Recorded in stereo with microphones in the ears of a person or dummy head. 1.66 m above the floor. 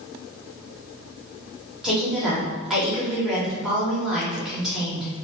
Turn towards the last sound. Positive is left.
turn(degrees=-5)  # may be behind; listen again after turning